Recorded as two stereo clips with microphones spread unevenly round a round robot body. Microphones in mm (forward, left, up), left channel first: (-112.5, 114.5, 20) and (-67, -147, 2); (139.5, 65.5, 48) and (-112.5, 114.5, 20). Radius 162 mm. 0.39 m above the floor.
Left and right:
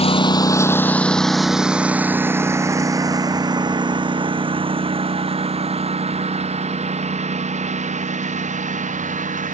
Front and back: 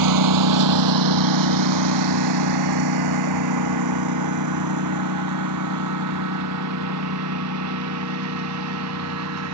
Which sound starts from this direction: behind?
A lawn mower, at 0.0 s.